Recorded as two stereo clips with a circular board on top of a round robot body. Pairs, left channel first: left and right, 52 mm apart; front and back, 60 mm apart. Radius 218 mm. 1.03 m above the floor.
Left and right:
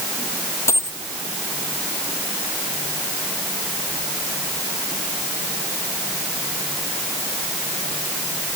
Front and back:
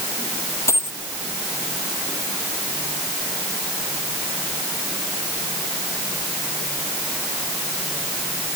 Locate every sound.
0.7 s a dropped coin: 50° left